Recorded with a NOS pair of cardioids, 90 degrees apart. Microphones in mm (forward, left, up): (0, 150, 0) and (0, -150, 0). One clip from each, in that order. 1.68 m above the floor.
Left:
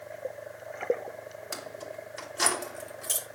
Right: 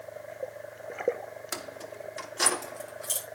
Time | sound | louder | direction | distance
1.5 | keys jangling | even | 20° right | 3 m